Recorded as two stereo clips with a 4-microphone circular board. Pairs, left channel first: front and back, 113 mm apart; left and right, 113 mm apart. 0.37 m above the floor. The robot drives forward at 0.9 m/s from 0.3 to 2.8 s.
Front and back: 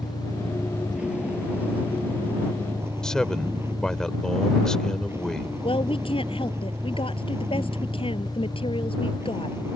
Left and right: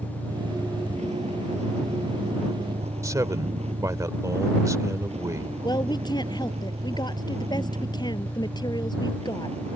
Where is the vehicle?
95° right; by 9.8 s 110° right.